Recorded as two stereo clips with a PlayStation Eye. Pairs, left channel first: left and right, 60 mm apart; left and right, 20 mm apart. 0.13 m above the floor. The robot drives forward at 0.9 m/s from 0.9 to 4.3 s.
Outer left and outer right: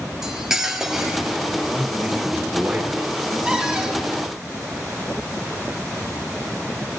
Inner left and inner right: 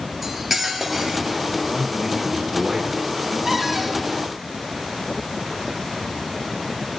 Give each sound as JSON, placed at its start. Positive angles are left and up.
{"t": 0.2, "sound": "cutlery clinking", "side_deg": -5, "distance_m": 1.5}
{"t": 1.7, "sound": "a man speaking", "side_deg": -5, "distance_m": 2.5}
{"t": 3.5, "sound": "a cupboard door", "side_deg": -15, "distance_m": 6.0}